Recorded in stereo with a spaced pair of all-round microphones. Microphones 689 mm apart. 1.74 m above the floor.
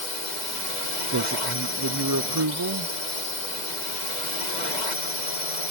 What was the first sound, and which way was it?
A drone, 85° left.